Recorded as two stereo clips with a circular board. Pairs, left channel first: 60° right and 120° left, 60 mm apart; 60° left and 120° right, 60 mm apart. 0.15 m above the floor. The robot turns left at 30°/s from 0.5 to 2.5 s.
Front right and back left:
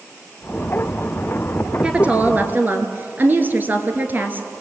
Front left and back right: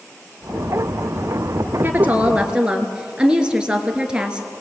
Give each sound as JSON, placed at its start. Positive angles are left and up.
{"t": 1.8, "sound": "a woman speaking", "azimuth_deg": -170, "distance_m": 2.5}